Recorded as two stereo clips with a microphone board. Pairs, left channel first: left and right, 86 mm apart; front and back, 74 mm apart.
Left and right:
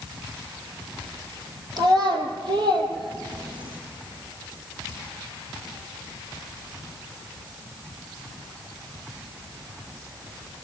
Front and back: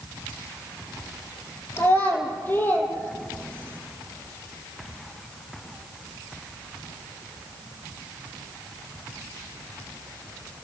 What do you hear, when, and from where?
1.8 s a child speaking: 55° right, 3 m; by 3.8 s 65° right, 4.5 m